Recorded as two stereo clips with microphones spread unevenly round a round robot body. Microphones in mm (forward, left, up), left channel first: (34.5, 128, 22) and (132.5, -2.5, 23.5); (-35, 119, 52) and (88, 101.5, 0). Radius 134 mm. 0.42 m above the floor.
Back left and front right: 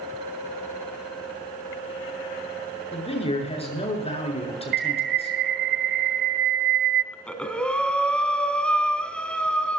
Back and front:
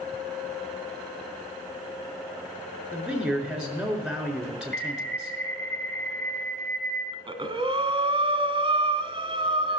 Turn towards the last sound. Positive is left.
turn(degrees=45)